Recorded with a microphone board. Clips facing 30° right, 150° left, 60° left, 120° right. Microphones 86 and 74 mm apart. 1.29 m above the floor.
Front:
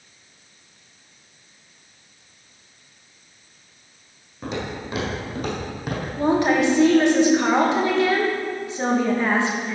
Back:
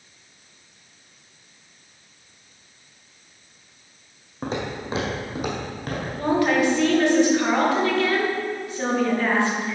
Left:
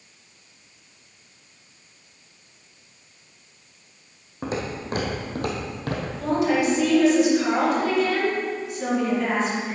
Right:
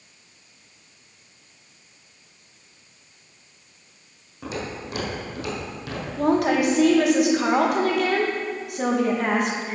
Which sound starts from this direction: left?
Footsteps, at 4.4 s.